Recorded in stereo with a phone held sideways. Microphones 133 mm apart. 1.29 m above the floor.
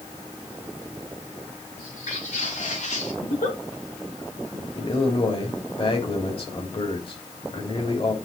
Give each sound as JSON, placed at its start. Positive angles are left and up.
{"t": 1.8, "sound": "footsteps", "side_deg": 65, "distance_m": 7.0}
{"t": 3.2, "sound": "a giggle", "side_deg": 75, "distance_m": 1.7}
{"t": 4.8, "sound": "a man speaking", "side_deg": 45, "distance_m": 3.5}